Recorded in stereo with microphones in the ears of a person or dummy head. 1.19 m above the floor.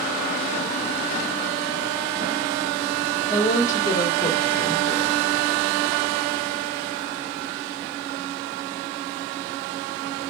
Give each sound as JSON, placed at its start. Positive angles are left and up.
{"t": 3.3, "sound": "a woman speaking", "side_deg": 20, "distance_m": 1.1}